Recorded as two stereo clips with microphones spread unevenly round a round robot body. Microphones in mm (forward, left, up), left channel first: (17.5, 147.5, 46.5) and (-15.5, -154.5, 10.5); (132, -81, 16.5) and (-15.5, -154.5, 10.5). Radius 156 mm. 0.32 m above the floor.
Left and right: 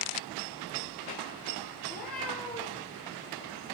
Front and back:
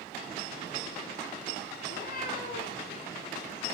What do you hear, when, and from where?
1.8 s a cat meowing: straight ahead, 5.5 m; by 2.8 s 5° right, 6.5 m